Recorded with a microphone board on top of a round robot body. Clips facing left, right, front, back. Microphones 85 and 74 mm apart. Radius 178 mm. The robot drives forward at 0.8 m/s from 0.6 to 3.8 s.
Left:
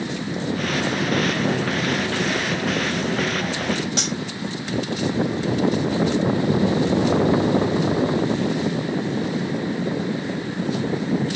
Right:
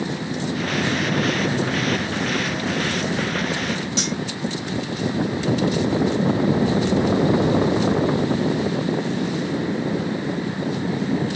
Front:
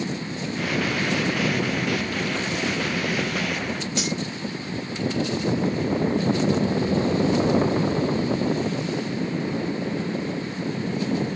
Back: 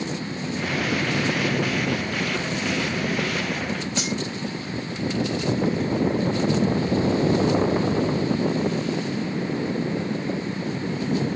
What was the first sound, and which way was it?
Cutlery clinking, 125° left.